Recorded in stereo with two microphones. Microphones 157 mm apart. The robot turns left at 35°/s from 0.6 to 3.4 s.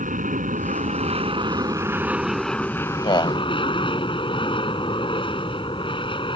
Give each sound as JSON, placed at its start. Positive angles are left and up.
{"t": 0.0, "sound": "an aircraft", "azimuth_deg": -115}
{"t": 3.0, "sound": "a man speaking", "side_deg": 35}